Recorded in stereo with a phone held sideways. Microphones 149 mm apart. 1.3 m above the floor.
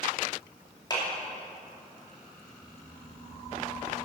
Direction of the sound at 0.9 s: 30° left (ahead or behind).